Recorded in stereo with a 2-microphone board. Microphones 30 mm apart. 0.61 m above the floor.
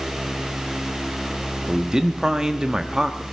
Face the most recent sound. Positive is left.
turn(degrees=-25)  # may be behind; listen again after turning